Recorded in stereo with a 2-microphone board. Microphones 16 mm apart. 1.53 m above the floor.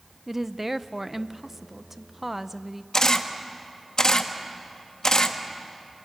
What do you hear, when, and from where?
0.3 s a woman speaking: 15° right (ahead or behind), 0.7 m
2.9 s a camera shutter: 45° left (ahead or behind), 1.3 m